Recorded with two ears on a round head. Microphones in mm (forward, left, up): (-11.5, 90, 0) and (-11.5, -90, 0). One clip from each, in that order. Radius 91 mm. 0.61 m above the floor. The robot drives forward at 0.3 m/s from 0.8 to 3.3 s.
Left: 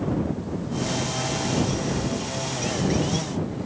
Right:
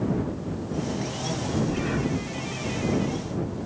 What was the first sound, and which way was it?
Breathing, 45° right (ahead or behind).